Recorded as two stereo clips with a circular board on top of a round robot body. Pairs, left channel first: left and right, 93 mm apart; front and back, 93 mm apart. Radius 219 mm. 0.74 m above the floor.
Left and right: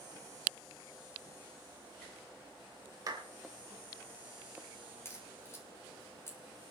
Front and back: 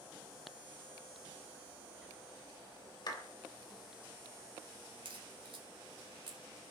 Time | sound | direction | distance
3.1 | a clap | 40° right | 3 m
5.0 | a crack | 150° left | 4 m